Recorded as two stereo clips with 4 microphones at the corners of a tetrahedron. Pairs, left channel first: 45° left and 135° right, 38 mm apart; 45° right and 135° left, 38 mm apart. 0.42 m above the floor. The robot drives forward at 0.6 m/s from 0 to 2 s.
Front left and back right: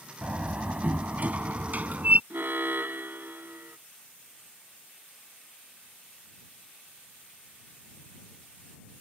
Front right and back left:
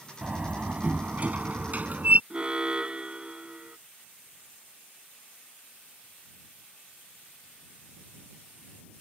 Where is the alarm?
160° right.